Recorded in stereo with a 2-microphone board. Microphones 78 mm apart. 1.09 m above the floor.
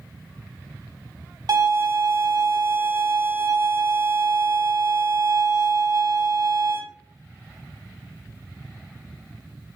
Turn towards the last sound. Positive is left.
turn(degrees=-55)  # may be behind; listen again after turning